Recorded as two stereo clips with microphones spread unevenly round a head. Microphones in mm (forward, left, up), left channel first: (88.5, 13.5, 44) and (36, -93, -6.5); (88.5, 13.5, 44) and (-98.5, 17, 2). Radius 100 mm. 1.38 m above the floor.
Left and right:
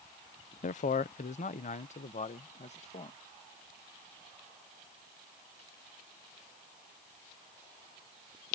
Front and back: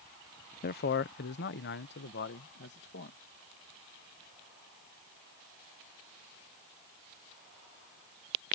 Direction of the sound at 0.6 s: 35° left.